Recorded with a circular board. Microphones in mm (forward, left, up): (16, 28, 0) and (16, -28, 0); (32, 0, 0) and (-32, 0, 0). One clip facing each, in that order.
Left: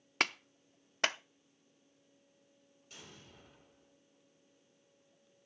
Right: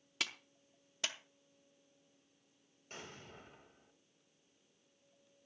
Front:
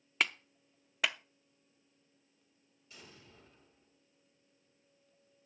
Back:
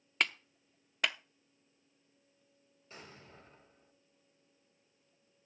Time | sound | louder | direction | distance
0.2 | a clap | left 8 dB, even | 85° left | 0.6 m
2.9 | an explosion | right 4 dB, back 4 dB | 135° right | 3.5 m